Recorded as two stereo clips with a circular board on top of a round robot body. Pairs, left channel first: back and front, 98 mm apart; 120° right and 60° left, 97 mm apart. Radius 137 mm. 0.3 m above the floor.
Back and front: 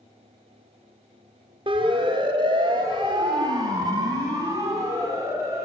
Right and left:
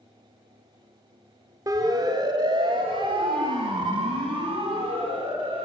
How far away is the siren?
About 2.5 m.